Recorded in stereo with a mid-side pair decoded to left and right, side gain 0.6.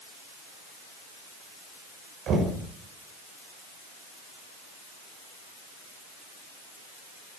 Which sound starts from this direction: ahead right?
Knocking, at 2.3 s.